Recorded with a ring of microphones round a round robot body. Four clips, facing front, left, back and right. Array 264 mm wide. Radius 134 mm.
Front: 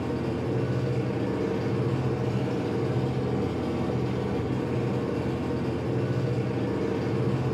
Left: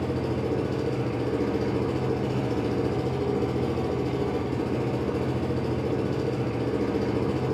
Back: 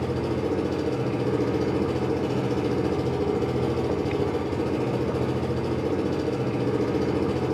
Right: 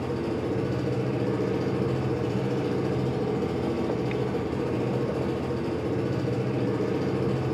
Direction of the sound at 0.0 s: 175° left.